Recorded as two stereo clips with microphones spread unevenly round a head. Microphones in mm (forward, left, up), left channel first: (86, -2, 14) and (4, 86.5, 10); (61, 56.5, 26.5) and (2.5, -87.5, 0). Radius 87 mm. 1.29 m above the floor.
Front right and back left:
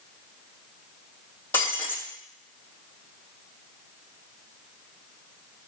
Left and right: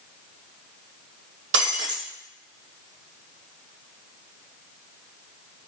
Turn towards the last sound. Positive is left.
turn(degrees=-125)